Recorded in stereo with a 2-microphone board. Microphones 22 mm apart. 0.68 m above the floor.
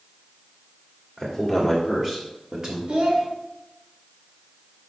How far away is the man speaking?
About 1.4 m.